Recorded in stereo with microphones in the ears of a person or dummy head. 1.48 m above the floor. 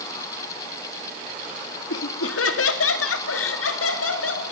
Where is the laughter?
90° left, 2.5 m; by 4.4 s 75° left (ahead or behind), 5.5 m.